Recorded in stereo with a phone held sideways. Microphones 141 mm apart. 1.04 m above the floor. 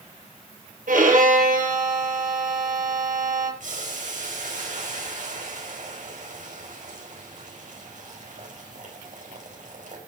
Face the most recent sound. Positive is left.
turn(degrees=-65)  # may be behind; listen again after turning